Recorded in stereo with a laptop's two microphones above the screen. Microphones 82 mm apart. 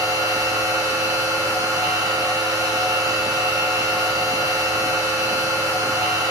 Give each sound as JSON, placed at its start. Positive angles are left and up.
{"t": 0.0, "sound": "a machine running", "side_deg": -45, "distance_m": 1.4}